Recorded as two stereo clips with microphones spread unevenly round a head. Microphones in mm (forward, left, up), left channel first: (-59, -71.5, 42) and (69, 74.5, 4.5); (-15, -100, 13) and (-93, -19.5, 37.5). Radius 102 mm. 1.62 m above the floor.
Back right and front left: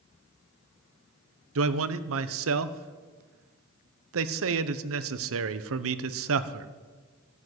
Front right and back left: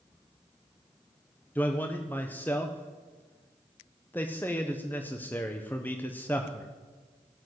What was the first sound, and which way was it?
A man speaking, 35° left.